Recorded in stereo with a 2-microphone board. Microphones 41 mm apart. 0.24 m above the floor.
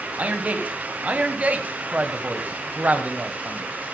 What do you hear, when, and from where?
0.2 s a man speaking: 40° right (ahead or behind), 1.8 m